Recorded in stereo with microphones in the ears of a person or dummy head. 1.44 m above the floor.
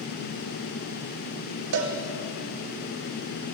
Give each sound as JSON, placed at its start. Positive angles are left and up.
{"t": 1.7, "sound": "a cowbell", "side_deg": -55, "distance_m": 1.7}